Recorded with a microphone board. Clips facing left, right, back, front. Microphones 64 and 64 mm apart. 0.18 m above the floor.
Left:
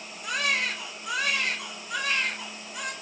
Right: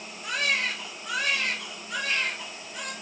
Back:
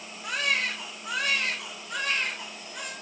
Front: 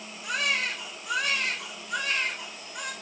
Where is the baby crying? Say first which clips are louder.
Even, even; 140° right, 2.5 m.